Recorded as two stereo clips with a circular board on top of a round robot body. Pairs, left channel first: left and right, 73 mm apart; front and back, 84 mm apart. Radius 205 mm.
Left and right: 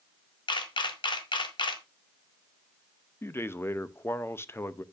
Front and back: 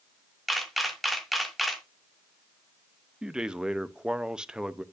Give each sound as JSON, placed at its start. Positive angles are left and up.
{"t": 0.5, "sound": "a camera shutter", "azimuth_deg": 90, "distance_m": 1.5}
{"t": 3.2, "sound": "a man speaking", "azimuth_deg": 105, "distance_m": 1.0}